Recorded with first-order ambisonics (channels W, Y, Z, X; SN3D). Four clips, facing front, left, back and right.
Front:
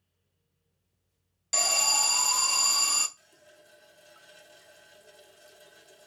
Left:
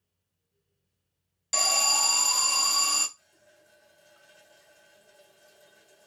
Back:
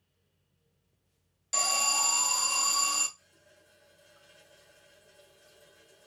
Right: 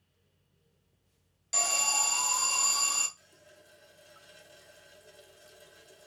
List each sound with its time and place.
1.5 s an alarm: 55° left, 0.5 m
3.2 s a running tap: 35° right, 0.8 m